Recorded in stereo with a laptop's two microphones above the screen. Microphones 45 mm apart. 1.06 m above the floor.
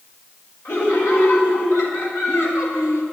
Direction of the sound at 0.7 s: 85° left.